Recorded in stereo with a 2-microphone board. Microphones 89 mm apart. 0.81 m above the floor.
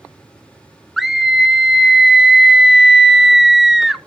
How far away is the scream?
About 0.6 m.